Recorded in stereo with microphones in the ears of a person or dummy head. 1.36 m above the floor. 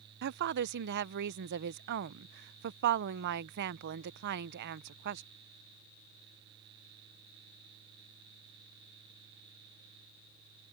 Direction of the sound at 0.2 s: 55° right (ahead or behind).